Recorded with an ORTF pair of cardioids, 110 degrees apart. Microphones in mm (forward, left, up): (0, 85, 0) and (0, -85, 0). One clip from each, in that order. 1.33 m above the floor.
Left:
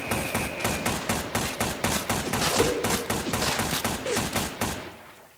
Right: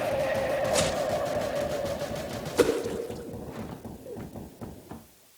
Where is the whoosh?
30° right, 1.5 m.